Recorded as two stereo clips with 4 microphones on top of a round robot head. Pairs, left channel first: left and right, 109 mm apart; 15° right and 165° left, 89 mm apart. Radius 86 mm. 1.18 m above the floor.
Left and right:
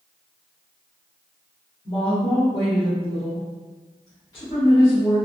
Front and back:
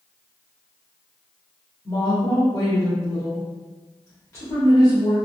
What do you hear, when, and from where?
1.9 s a woman speaking: 40° left, 1.4 m